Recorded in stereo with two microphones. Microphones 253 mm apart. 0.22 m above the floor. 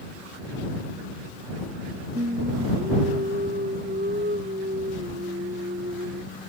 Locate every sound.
2.1 s singing: 40° right (ahead or behind)